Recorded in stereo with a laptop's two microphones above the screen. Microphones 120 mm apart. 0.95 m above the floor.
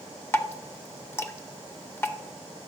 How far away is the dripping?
About 0.5 m.